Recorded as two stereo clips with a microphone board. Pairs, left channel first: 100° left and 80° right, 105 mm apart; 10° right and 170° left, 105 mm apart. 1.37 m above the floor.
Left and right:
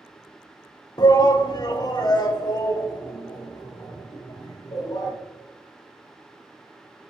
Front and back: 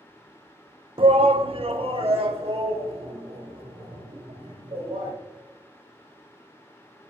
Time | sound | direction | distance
1.0 | a shout | 145° left | 0.6 m